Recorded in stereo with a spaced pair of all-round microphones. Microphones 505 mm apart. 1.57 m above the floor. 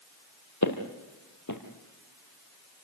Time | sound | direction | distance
0.6 | footsteps | 35° left (ahead or behind) | 2.5 m